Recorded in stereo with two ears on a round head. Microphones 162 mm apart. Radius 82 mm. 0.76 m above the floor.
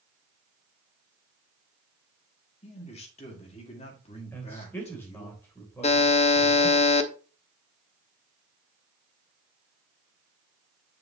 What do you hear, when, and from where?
2.6 s a man speaking: 35° left (ahead or behind), 1.8 m
4.3 s a man speaking: 10° left (ahead or behind), 3 m
5.8 s a buzzer: 35° left (ahead or behind), 0.8 m